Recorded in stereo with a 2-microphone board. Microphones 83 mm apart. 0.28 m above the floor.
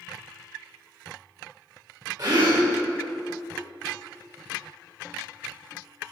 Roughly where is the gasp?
Right.